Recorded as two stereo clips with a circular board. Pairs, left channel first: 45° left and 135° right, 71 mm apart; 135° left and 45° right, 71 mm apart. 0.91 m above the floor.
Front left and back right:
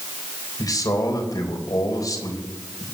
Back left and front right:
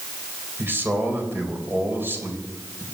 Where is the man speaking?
15° left, 3.5 m.